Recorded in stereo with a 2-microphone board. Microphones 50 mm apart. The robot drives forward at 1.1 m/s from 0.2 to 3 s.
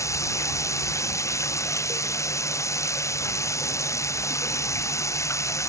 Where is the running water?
80° left; by 5.7 s 75° left (ahead or behind).